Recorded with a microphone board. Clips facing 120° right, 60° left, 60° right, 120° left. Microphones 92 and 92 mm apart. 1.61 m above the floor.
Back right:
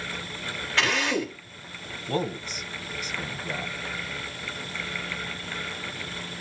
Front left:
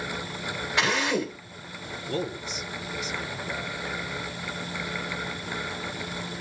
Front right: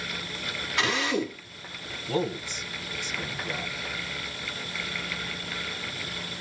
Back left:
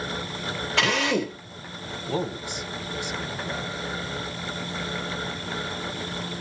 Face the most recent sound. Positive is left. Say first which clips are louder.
# back right 2 dB, front right 1 dB
turn(degrees=-165)